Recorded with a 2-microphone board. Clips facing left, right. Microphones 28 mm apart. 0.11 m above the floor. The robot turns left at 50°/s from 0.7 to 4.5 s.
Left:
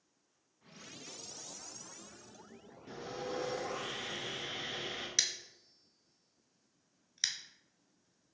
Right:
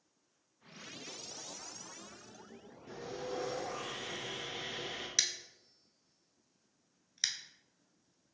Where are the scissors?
Centre (ahead or behind), 0.6 m.